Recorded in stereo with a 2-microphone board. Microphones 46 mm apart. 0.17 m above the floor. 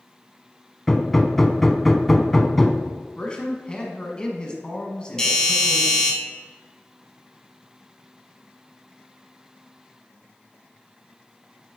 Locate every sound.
0.9 s hammering: 5° left (ahead or behind), 0.5 m
3.2 s a man speaking: 20° left (ahead or behind), 1.1 m
5.2 s a doorbell: 15° left (ahead or behind), 2.0 m